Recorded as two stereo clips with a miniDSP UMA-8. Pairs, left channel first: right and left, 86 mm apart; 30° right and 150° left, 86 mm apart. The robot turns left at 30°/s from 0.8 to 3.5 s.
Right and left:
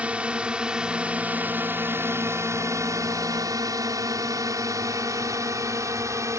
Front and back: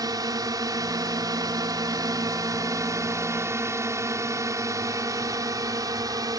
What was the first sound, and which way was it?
A drone, 160° left.